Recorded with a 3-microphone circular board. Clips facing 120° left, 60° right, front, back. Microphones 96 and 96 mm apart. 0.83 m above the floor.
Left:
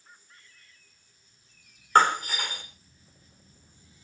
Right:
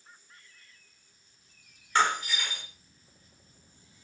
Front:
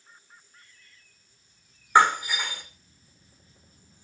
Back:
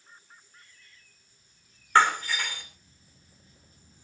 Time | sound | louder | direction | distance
1.9 | breaking glass | left 5 dB, front 2 dB | 75° left | 4.5 m